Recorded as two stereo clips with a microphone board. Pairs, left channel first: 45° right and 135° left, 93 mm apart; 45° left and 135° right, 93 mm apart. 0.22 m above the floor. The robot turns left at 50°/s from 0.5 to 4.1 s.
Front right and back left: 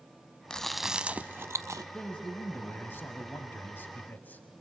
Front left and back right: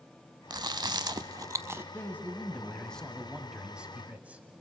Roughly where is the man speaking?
Ahead left.